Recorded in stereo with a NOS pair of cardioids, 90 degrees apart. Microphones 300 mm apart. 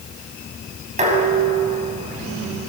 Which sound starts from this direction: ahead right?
Dishes clattering, at 1.0 s.